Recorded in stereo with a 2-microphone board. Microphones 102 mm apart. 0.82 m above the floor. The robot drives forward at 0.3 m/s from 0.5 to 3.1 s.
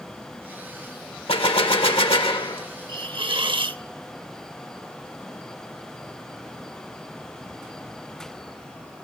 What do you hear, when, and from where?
1.3 s a gunshot: 70° left (ahead or behind), 1.7 m; by 2.7 s 60° left (ahead or behind), 1.9 m
2.9 s a hiss: 55° right (ahead or behind), 0.6 m